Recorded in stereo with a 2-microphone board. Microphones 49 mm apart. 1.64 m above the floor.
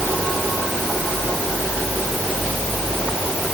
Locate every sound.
Only background noise.